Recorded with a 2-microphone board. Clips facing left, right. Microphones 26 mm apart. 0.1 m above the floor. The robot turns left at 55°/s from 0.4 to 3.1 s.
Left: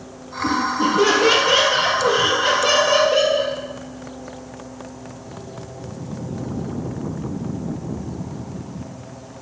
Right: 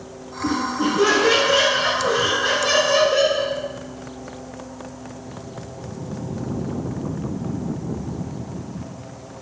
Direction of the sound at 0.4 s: 170° right.